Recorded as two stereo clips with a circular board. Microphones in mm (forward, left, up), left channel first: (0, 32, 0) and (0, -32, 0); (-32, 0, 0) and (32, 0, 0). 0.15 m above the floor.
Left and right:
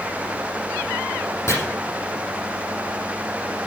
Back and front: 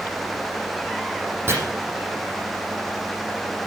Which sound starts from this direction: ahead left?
Chopping, at 1.5 s.